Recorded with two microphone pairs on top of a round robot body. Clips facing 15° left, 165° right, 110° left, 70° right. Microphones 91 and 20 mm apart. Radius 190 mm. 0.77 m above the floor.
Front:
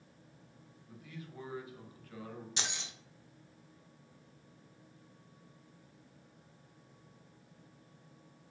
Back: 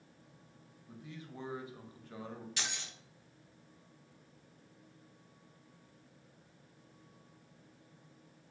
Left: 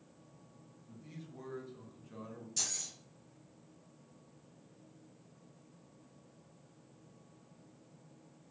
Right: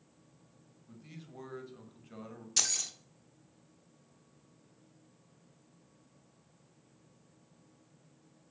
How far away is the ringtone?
I don't hear a ringtone.